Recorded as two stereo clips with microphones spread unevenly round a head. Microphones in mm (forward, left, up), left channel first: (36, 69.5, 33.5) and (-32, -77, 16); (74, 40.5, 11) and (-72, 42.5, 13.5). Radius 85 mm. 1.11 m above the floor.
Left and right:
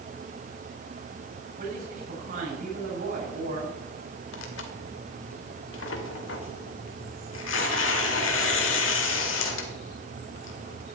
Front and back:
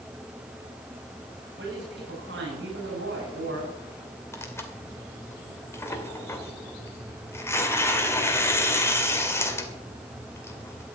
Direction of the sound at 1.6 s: 160° right.